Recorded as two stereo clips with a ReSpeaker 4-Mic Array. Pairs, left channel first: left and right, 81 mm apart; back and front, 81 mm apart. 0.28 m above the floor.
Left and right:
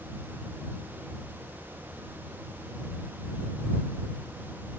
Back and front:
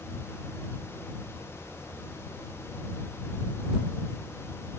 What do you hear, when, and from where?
Only background noise.